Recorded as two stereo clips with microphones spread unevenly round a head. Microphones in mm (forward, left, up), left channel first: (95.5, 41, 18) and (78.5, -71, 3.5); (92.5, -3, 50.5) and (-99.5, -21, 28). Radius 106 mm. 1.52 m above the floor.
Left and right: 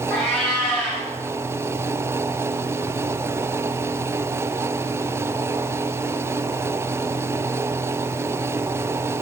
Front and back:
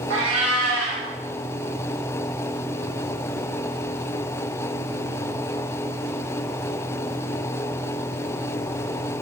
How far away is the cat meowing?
About 2.5 m.